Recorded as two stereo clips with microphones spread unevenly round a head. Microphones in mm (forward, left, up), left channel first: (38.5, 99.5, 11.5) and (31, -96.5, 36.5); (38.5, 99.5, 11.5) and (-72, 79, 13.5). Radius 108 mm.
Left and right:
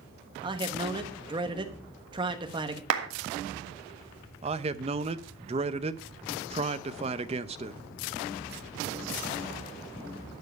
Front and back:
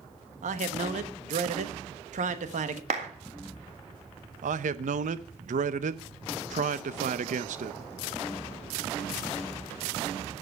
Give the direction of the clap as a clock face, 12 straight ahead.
4 o'clock.